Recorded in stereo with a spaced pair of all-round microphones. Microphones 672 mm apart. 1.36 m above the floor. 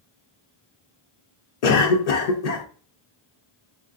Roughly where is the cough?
Left.